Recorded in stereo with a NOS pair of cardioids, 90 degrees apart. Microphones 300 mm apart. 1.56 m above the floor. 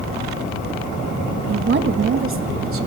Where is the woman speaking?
35° right, 2 m; by 2.9 s 45° right, 4 m.